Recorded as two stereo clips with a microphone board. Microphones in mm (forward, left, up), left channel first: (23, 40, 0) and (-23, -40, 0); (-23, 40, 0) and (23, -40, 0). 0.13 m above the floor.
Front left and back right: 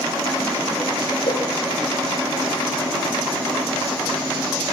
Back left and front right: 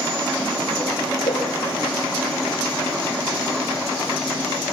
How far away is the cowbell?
About 4.5 m.